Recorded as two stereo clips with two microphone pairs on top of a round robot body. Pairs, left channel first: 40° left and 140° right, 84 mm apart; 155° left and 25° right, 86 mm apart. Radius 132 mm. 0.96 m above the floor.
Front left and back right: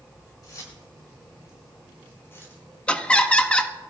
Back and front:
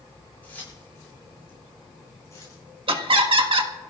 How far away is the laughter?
About 1.6 m.